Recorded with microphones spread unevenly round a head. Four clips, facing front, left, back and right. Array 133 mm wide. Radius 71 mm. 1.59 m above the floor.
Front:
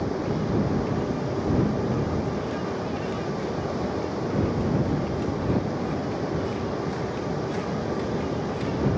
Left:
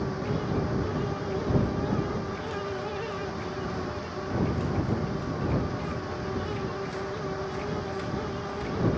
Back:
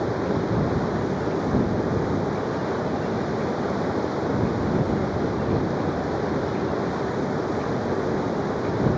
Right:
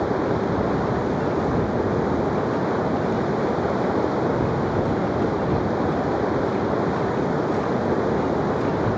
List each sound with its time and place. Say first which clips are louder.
0.0 s running water: right 9 dB, back 3 dB; 105° right